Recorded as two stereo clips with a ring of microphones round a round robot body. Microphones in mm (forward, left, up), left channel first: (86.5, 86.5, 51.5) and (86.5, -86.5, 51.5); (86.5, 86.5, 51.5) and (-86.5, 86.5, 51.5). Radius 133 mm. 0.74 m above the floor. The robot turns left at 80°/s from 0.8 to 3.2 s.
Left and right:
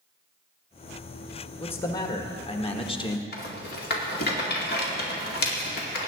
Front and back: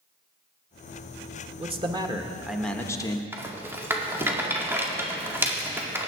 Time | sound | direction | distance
1.6 | a man speaking | 170° left | 1.3 m
3.3 | a rattle | 105° left | 2 m